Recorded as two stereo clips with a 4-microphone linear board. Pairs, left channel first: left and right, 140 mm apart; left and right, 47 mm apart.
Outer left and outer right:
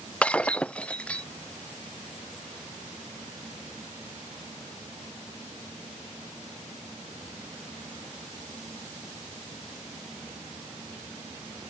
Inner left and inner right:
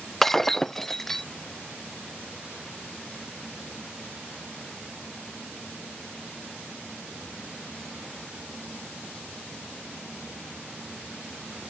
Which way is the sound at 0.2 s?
10° left (ahead or behind).